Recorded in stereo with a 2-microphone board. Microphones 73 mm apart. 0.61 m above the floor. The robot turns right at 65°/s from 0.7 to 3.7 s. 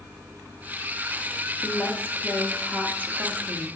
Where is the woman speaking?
120° left, 0.8 m; by 3.7 s 105° right, 0.8 m.